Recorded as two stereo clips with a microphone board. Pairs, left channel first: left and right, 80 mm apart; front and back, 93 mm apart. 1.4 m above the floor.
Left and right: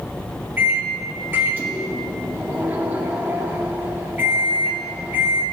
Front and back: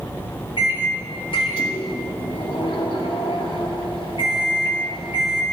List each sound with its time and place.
0.6 s a microwave: 25° right, 2.5 m